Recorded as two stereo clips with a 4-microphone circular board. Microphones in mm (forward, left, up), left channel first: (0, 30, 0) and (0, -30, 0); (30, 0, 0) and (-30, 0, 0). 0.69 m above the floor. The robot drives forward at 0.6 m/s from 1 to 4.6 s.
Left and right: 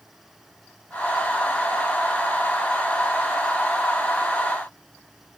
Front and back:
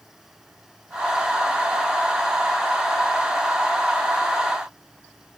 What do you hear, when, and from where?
Only background noise.